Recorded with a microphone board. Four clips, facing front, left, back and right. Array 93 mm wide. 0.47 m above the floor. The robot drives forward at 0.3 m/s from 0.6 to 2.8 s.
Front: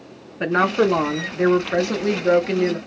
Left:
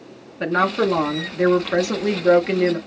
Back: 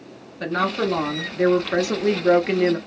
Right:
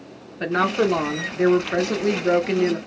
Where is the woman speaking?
15° left, 0.8 m; by 2.8 s 165° left, 0.8 m.